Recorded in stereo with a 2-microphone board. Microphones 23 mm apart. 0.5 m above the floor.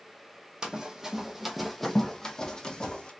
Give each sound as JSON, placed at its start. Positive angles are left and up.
{"t": 0.6, "sound": "running footsteps", "side_deg": -35, "distance_m": 1.0}